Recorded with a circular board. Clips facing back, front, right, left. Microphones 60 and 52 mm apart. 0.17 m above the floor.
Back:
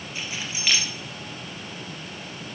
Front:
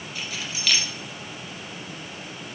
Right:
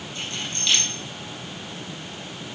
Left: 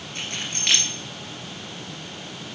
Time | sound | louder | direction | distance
0.1 | keys jangling | back 1 dB, left 1 dB | 115° left | 1.7 m